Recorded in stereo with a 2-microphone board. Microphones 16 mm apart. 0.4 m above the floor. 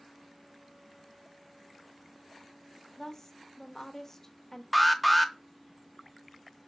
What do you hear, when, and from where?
3.0 s a woman speaking: 25° left (ahead or behind), 1.1 m
4.7 s an alarm: 5° right (ahead or behind), 0.8 m